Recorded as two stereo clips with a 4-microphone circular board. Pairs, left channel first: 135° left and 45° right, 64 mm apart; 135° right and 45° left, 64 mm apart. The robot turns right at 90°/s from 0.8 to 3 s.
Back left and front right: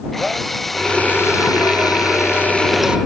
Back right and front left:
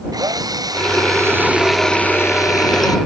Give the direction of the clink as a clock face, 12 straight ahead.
No clink in this recording.